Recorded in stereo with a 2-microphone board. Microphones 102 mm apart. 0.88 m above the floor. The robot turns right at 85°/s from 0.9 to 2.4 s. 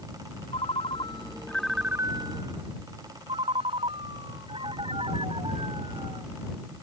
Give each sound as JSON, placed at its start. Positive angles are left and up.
{"t": 0.5, "sound": "a ringtone", "azimuth_deg": 115}